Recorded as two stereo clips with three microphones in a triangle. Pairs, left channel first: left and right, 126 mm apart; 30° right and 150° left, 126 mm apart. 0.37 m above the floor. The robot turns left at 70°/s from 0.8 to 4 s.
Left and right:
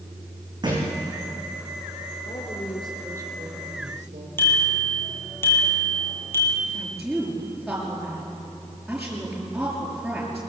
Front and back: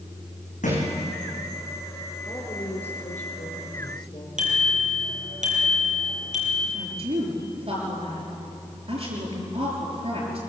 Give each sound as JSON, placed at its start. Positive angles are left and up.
{"t": 0.6, "sound": "a thud", "azimuth_deg": -35, "distance_m": 7.5}
{"t": 2.2, "sound": "a woman speaking", "azimuth_deg": 45, "distance_m": 4.5}
{"t": 4.4, "sound": "a bicycle bell", "azimuth_deg": 160, "distance_m": 7.0}
{"t": 6.7, "sound": "a woman speaking", "azimuth_deg": 180, "distance_m": 6.0}